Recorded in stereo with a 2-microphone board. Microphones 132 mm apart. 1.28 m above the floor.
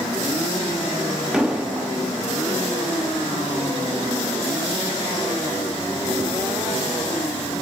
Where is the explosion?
5° right (ahead or behind), 3 m.